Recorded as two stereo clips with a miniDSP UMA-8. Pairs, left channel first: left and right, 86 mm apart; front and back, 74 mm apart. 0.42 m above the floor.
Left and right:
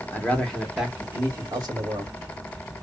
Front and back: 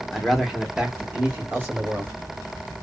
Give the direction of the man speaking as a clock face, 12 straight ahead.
9 o'clock.